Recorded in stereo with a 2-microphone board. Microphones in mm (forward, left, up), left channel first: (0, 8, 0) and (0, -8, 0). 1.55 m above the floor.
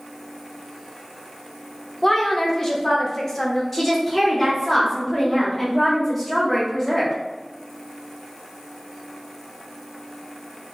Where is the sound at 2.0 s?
30° left (ahead or behind), 0.8 m.